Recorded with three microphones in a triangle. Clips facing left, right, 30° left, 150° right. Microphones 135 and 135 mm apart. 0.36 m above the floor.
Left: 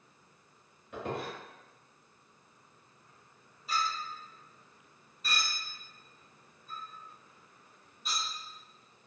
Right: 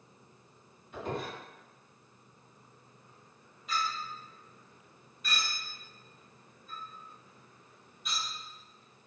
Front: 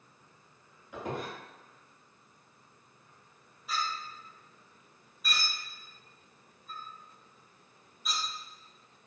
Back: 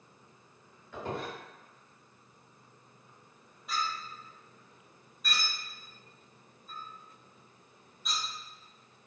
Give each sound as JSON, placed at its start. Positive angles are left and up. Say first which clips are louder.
{"t": 0.9, "sound": "a squeak", "louder": "even, even", "azimuth_deg": 105, "distance_m": 1.6}
{"t": 3.7, "sound": "a clink", "louder": "left 1 dB, even", "azimuth_deg": 115, "distance_m": 0.9}